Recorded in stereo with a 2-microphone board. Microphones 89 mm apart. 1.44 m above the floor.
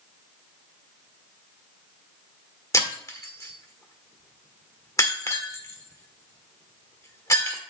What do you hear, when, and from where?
2.7 s breaking glass: 40° left (ahead or behind), 1.4 m